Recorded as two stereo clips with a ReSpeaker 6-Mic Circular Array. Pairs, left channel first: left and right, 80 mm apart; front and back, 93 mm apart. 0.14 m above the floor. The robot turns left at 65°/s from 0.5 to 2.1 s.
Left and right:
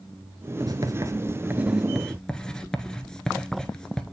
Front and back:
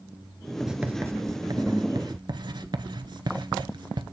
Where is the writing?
90° right, 0.7 m; by 4.0 s 170° left, 0.7 m.